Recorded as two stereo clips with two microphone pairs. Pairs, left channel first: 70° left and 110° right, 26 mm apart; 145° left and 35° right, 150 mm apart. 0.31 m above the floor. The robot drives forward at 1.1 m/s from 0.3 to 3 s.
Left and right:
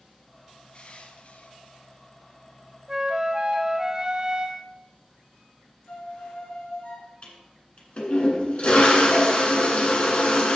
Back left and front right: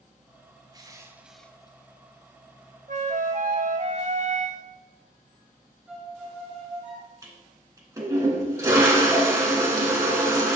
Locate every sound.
0.7 s crushing: 25° left, 1.2 m; by 1.8 s 100° left, 0.6 m
2.9 s a flute: 40° right, 0.8 m; by 4.6 s 50° right, 0.7 m
5.9 s a violin: 45° left, 3.5 m
7.2 s a toilet flushing: 30° left, 2.5 m